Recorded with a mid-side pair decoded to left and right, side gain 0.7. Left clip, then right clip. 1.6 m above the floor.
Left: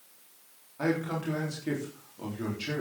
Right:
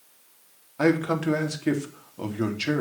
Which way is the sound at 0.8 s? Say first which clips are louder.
Right 8 dB; 45° right.